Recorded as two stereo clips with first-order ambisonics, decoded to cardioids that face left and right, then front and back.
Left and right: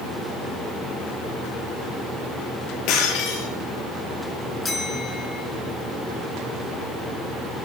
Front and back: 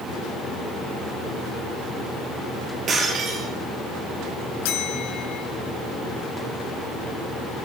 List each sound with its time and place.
2.9 s breaking glass: 120° left, 4 m
4.6 s a bell: 10° left, 2.5 m